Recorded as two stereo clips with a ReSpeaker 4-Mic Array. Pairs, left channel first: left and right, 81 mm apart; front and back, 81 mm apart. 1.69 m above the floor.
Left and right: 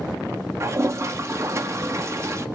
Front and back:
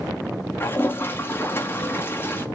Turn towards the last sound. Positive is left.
turn(degrees=-50)